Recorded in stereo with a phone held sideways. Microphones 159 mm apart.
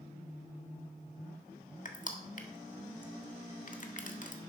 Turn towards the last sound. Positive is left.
turn(degrees=55)  # may be behind; listen again after turning